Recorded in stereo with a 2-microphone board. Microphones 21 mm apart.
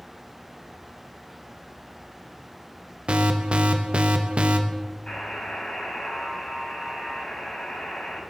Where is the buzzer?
60° left (ahead or behind), 6.5 m.